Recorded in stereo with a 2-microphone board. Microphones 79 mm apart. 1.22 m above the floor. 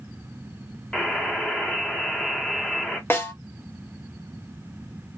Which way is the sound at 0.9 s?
5° left (ahead or behind).